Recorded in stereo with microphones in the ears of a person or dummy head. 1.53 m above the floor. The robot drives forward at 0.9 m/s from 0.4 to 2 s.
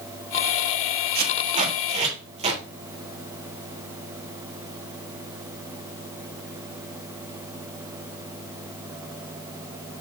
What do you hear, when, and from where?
1.1 s tape being pulled: 50° right (ahead or behind), 1.4 m; by 2.6 s 30° right (ahead or behind), 2.0 m